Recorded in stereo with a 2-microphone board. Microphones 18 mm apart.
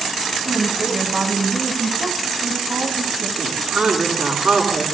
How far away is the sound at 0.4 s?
About 4.5 m.